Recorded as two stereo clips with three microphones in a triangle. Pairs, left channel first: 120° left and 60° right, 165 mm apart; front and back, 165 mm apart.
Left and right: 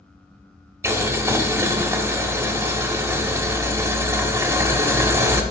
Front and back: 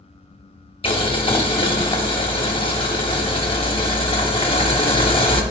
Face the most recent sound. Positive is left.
turn(degrees=0)